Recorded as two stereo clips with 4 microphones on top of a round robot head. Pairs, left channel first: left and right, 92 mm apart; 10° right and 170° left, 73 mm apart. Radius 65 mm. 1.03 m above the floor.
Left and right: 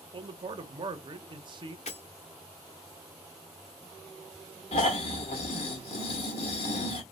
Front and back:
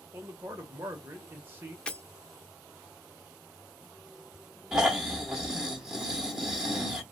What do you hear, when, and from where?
0.1 s a man speaking: 125° right, 0.8 m
1.9 s breaking glass: 65° left, 0.9 m
4.7 s snoring: 90° left, 0.9 m